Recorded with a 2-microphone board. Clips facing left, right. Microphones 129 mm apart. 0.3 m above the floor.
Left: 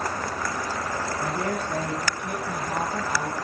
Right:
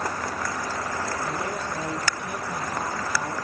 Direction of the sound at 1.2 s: 65° left (ahead or behind).